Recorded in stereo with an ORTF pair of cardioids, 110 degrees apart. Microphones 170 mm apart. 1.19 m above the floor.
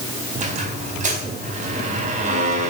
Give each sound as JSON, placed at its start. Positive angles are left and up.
{"t": 0.3, "sound": "a squeak", "azimuth_deg": -50, "distance_m": 4.5}